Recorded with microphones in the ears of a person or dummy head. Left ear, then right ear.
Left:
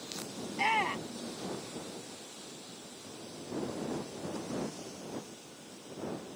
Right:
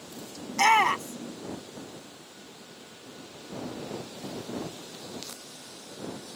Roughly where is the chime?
I don't hear a chime.